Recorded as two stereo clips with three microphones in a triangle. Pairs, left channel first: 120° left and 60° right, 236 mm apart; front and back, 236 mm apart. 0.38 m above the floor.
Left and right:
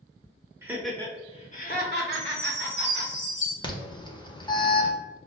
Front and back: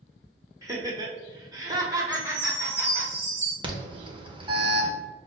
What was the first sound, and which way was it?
Laughter, 120° right.